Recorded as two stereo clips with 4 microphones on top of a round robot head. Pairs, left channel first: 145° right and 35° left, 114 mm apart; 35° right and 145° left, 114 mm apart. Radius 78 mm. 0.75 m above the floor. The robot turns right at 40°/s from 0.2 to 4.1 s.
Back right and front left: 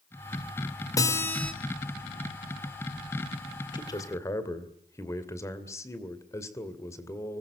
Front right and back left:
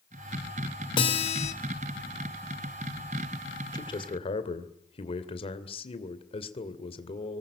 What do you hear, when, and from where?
1.0 s a guitar: 85° right, 3 m; by 1.5 s 60° right, 3 m
3.7 s a man speaking: 90° right, 2.5 m; by 7.4 s 80° right, 2.5 m